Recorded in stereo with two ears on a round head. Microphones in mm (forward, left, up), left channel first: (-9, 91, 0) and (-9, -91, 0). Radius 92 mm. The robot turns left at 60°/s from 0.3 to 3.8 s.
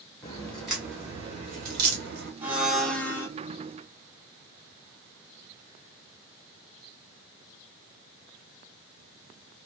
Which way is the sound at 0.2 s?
15° left (ahead or behind).